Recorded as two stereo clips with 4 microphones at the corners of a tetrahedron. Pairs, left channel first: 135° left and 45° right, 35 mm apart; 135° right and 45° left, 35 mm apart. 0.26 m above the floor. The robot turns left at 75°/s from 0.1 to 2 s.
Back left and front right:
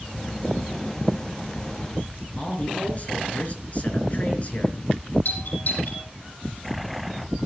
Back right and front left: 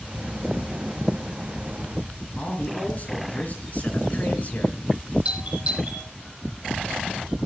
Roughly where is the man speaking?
Behind.